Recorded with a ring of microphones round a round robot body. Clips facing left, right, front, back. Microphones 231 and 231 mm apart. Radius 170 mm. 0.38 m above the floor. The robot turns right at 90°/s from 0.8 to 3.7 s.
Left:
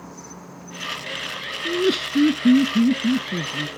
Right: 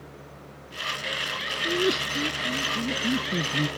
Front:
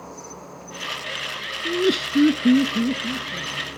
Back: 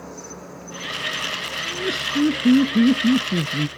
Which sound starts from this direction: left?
An insect, at 0.0 s.